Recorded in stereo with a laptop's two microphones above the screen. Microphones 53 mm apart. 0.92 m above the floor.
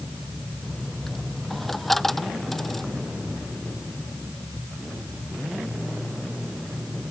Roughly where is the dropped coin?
Centre.